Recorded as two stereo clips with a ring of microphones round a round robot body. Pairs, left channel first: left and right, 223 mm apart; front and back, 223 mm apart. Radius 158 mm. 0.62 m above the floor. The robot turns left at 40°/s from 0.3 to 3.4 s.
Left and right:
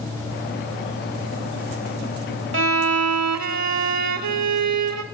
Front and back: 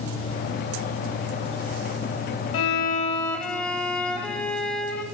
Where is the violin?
50° right, 0.9 m; by 5.0 s 85° right, 0.9 m.